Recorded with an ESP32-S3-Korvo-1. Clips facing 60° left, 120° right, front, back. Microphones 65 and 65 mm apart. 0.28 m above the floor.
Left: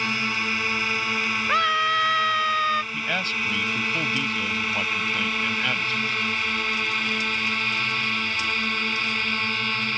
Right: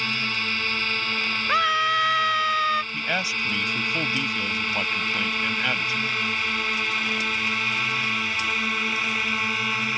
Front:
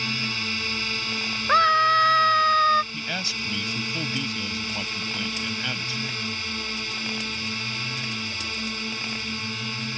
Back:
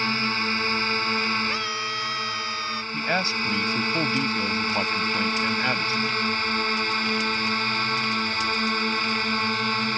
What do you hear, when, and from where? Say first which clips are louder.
0.0 s a drone: left 2 dB, back 5 dB; 135° left; by 10.0 s 160° left
1.5 s a scream: even, front 11 dB; 30° right
2.9 s a man speaking: even, back 6 dB; 165° left